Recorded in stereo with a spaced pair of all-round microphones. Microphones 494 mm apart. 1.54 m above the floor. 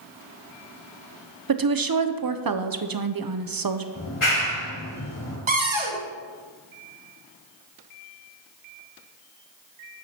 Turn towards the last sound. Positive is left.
turn(degrees=-65)  # may be behind; listen again after turning